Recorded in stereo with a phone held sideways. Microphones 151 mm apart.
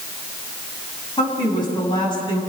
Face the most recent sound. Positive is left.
turn(degrees=30)  # may be behind; listen again after turning